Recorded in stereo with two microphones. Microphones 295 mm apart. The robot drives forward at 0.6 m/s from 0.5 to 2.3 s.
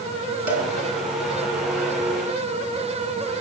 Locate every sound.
0.5 s a cowbell: 85° right, 2.5 m